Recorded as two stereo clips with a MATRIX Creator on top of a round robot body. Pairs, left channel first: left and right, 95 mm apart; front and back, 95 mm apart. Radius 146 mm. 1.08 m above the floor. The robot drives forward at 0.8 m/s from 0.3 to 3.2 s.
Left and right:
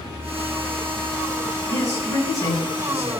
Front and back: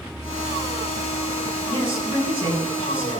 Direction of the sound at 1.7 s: 150° left.